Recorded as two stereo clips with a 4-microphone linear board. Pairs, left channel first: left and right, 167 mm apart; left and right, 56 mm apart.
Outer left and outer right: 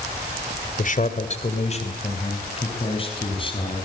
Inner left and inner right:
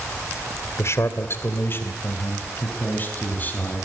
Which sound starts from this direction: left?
A man speaking, at 0.8 s.